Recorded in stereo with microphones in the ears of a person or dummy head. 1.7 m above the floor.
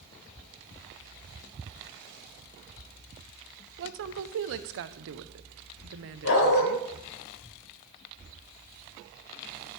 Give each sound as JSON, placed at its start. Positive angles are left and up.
{"t": 3.8, "sound": "a woman speaking", "side_deg": -65, "distance_m": 0.8}
{"t": 6.2, "sound": "a dog barking", "side_deg": 75, "distance_m": 3.5}